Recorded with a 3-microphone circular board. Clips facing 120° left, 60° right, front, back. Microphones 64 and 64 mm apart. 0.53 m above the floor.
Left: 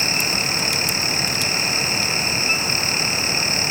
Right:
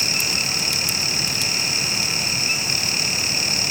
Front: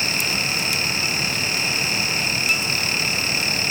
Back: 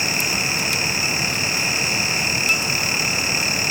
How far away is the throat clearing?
No throat clearing in this recording.